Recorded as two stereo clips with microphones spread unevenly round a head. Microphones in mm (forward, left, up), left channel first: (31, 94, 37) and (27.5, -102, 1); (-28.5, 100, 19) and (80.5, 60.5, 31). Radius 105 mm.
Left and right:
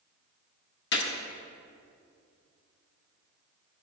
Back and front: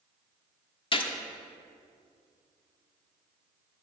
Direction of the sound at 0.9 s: 120° left.